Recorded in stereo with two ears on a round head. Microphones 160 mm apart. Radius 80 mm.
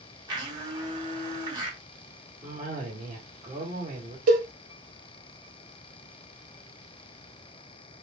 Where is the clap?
I don't hear a clap.